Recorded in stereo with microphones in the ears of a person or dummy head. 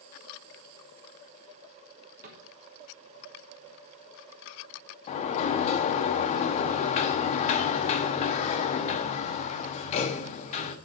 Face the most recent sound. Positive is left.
turn(degrees=40)  # may be behind; listen again after turning